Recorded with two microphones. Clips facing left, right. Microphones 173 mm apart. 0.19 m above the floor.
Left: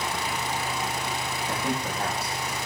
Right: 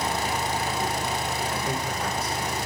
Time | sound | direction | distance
1.5 | a man speaking | 65° left (ahead or behind) | 9 m